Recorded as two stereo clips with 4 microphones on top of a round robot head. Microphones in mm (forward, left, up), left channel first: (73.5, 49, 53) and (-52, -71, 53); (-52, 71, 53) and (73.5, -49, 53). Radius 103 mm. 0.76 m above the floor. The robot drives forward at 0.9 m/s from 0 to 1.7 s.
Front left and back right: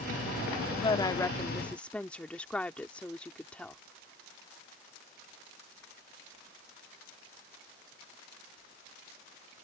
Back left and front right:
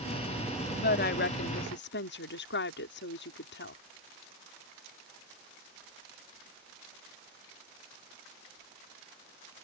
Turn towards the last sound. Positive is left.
turn(degrees=125)